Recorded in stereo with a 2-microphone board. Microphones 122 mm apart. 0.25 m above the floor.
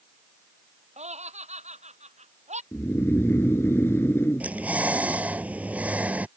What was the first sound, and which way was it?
Laughter, 70° right (ahead or behind).